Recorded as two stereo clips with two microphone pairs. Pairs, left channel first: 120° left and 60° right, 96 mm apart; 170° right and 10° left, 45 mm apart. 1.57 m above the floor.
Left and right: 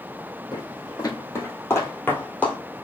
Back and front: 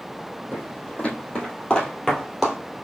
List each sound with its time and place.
0.5 s footsteps: 140° left, 2.5 m; by 2.6 s 115° left, 1.5 m